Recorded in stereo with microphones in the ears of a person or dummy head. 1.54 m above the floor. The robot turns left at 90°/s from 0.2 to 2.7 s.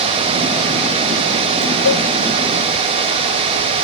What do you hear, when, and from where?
1.9 s a cowbell: 75° left (ahead or behind); by 2.1 s 70° left (ahead or behind)